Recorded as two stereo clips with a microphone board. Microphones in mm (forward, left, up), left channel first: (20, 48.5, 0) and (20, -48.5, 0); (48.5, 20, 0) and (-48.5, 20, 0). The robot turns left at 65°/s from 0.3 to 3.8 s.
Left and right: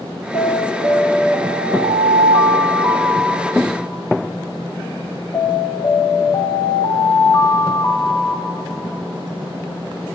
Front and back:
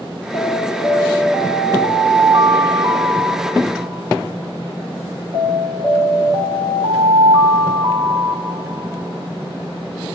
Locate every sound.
0.3 s an alarm: 5° left, 4.5 m; by 10.2 s 140° left, 4.5 m